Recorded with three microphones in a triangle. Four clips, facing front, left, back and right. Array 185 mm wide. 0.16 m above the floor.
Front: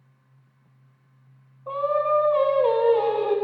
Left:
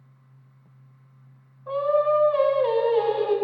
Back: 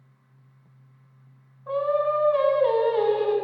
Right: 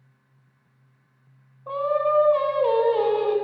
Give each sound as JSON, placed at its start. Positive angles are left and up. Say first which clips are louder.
{"t": 1.7, "sound": "singing", "louder": "left 1 dB, front 1 dB", "azimuth_deg": -35, "distance_m": 1.0}